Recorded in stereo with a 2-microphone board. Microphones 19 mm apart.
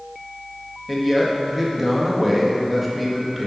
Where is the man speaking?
5° right (ahead or behind), 1.4 m.